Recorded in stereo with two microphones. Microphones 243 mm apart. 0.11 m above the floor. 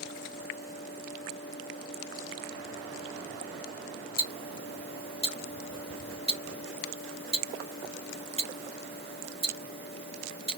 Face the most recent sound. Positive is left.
turn(degrees=-25)  # may be behind; listen again after turning